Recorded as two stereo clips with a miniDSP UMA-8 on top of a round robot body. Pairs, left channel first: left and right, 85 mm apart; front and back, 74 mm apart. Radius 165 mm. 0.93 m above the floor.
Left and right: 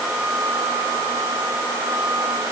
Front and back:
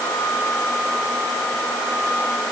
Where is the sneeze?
I don't hear a sneeze.